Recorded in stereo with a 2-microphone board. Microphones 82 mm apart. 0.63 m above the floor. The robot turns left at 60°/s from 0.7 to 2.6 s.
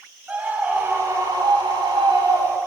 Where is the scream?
20° right, 3.5 m; by 2.6 s 135° right, 3.5 m.